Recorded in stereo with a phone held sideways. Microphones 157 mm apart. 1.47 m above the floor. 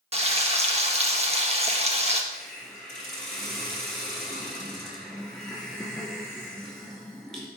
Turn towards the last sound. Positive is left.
turn(degrees=0)  # may be behind; listen again after turning